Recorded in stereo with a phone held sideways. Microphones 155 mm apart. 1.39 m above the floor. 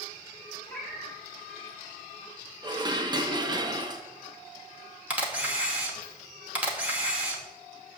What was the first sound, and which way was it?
A cat meowing, centre (ahead or behind).